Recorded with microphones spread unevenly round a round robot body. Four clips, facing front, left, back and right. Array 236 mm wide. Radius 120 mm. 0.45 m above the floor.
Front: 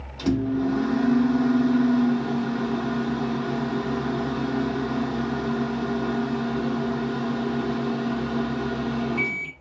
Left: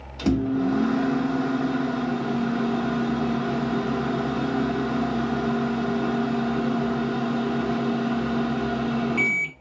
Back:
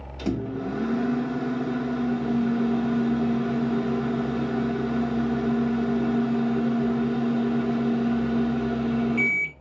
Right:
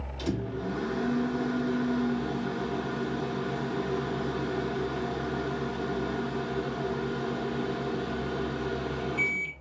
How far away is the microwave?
About 1.5 m.